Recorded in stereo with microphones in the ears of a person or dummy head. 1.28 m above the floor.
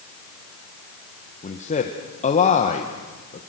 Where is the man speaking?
35° left (ahead or behind), 1.4 m.